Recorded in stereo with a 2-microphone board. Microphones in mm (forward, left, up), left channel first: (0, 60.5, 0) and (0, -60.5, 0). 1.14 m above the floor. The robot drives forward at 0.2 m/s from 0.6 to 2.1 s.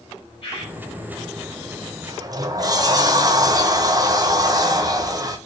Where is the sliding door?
30° right (ahead or behind), 0.6 m.